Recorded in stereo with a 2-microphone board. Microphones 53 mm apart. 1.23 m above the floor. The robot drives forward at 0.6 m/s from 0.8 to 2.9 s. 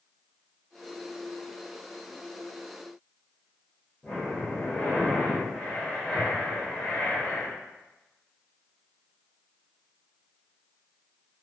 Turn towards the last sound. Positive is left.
turn(degrees=15)  # may be behind; listen again after turning